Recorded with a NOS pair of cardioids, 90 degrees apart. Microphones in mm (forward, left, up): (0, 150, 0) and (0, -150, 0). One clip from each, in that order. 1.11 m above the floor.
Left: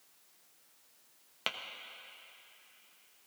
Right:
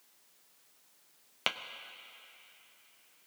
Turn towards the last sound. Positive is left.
turn(degrees=-20)